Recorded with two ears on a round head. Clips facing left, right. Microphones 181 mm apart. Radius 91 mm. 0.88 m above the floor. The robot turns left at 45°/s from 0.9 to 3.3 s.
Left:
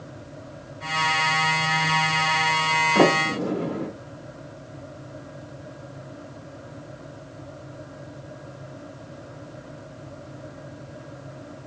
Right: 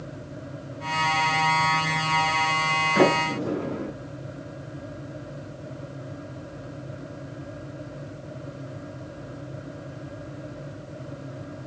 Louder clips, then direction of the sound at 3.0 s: Left 1 dB; 60° left (ahead or behind).